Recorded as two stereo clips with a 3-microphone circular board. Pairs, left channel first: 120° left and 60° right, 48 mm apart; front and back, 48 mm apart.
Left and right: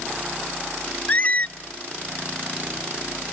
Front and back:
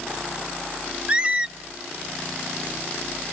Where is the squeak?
140° left, 0.6 m.